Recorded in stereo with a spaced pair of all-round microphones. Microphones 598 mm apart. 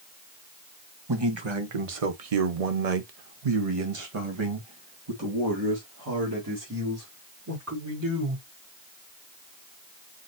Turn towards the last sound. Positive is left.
turn(degrees=-25)  # may be behind; listen again after turning